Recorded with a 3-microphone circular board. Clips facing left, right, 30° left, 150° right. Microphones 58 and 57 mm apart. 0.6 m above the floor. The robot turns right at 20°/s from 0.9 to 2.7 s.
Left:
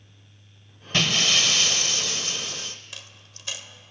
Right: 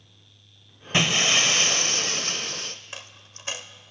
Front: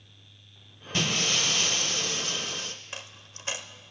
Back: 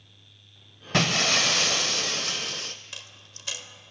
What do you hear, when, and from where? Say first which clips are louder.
0.9 s breaking glass: right 1 dB, back 5 dB; 160° right, 0.7 m; by 2.8 s 125° right, 0.7 m
2.9 s a dropped coin: right 3 dB, front 3 dB; 30° right, 0.6 m